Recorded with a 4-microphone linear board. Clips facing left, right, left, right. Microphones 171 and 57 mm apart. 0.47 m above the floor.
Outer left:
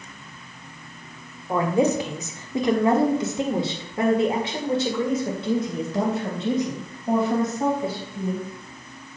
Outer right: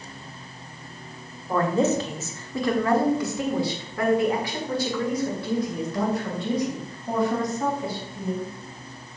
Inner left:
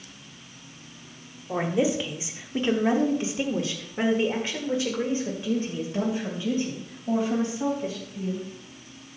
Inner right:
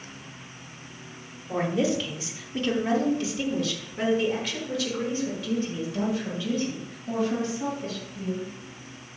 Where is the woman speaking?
10° left (ahead or behind), 1.3 m; by 8.5 s 20° left (ahead or behind), 3.5 m.